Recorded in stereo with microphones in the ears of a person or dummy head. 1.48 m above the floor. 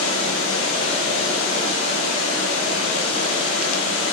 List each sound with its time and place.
0.0 s running water: 65° left (ahead or behind), 5 m